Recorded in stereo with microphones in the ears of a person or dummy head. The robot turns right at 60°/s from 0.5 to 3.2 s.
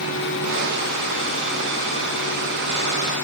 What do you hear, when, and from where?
Only background noise.